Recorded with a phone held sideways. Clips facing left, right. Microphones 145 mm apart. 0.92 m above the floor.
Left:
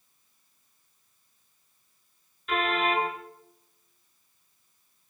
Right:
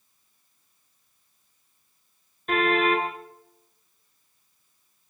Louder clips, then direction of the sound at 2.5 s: Right 5 dB; 45° right (ahead or behind).